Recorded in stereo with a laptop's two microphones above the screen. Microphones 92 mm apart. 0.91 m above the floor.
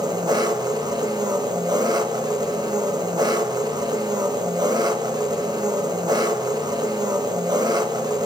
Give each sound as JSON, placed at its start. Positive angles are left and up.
{"t": 0.0, "sound": "an engine running", "side_deg": -50, "distance_m": 0.9}